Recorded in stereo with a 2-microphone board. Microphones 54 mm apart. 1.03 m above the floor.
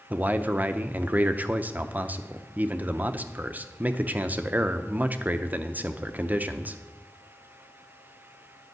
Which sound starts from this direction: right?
A man speaking, at 0.1 s.